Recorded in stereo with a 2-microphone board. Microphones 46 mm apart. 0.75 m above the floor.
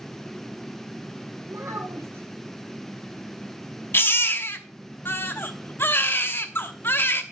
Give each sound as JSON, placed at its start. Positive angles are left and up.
{"t": 1.5, "sound": "a child speaking", "side_deg": -85, "distance_m": 2.5}
{"t": 3.9, "sound": "a baby crying", "side_deg": 50, "distance_m": 1.0}